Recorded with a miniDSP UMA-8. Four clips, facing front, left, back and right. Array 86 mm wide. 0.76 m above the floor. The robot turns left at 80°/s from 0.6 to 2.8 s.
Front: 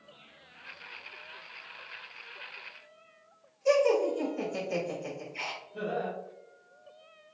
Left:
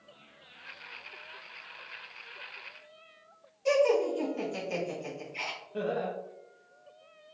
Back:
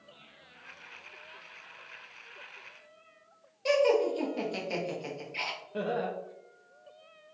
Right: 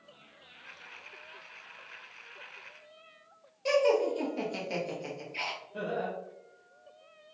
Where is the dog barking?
I don't hear a dog barking.